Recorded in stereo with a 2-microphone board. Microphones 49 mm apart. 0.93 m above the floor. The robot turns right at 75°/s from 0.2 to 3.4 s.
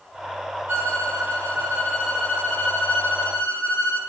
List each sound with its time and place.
0.7 s a violin: 110° right, 2.0 m; by 4.0 s 95° left, 2.0 m